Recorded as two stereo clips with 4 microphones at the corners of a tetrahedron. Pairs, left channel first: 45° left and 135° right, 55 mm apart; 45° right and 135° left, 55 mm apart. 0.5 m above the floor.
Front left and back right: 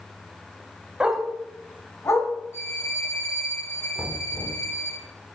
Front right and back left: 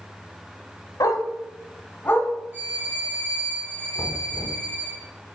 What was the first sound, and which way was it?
A dog barking, 60° right.